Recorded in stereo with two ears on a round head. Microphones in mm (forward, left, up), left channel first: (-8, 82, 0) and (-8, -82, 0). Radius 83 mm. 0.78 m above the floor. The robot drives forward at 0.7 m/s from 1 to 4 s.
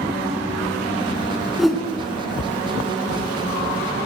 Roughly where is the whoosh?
Centre.